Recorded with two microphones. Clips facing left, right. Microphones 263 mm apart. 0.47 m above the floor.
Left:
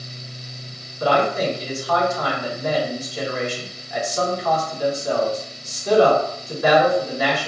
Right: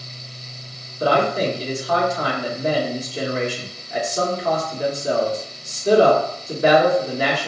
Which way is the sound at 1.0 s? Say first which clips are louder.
Right 1 dB; 30° right (ahead or behind).